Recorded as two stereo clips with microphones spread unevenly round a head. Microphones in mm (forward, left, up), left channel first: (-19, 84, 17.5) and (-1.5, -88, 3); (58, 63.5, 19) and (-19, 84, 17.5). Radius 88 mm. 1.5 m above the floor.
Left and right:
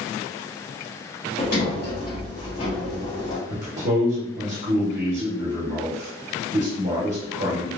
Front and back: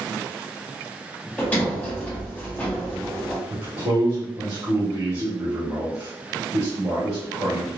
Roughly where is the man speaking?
Behind right.